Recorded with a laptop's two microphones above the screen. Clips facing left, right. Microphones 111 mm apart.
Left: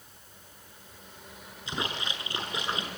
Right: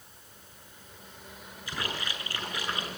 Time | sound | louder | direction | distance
1.7 | a splash | left 2 dB | 20° left (ahead or behind) | 7 m